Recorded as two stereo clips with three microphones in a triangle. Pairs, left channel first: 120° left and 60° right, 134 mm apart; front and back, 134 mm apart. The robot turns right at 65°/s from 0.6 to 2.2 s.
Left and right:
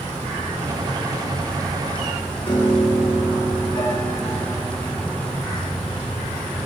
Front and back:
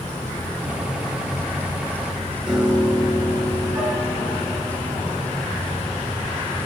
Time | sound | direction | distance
2.5 | a piano | 105° left | 2.5 m